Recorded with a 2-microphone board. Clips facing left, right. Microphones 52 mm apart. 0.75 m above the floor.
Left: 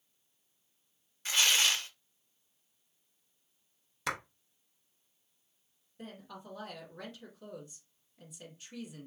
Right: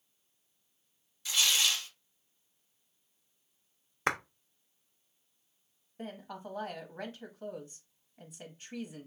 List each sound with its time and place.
1.2 s tearing paper: 40° left (ahead or behind), 0.5 m
4.1 s a clap: 35° right (ahead or behind), 0.6 m
6.0 s a woman speaking: 30° right (ahead or behind), 1.0 m